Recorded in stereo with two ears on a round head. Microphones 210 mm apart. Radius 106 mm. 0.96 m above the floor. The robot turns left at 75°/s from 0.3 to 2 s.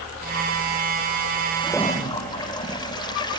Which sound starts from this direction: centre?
A toilet flushing, at 1.6 s.